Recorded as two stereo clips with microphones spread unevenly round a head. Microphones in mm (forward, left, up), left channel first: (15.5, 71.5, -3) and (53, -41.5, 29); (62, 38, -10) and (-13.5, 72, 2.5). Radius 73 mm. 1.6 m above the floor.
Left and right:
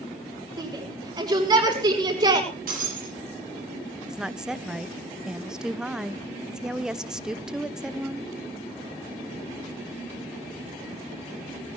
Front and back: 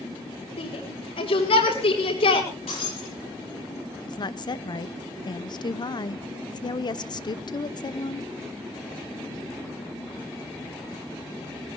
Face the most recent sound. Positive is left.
turn(degrees=10)